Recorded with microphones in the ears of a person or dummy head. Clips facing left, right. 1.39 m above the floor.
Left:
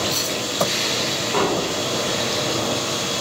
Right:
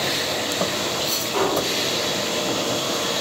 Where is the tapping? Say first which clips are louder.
Even; 55° left (ahead or behind), 0.8 m.